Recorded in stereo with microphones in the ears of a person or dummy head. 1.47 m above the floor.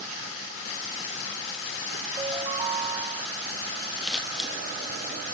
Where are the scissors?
Centre (ahead or behind), 3 m.